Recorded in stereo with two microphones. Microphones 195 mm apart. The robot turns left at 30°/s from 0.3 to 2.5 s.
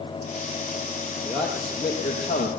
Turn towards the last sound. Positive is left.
turn(degrees=140)